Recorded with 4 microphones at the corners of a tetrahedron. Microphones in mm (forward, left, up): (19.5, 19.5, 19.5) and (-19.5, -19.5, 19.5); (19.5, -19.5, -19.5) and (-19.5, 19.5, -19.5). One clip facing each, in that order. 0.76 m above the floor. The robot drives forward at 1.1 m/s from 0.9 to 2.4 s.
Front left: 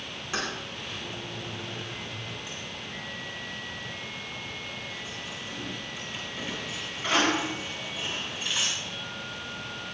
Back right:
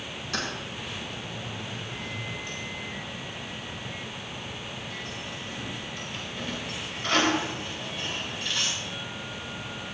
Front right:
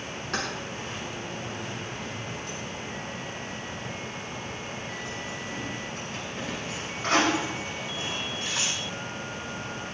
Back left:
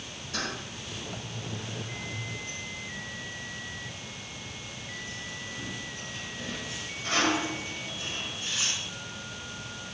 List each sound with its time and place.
0.3 s keys jangling: 25° right, 6.5 m; by 8.7 s 35° right, 5 m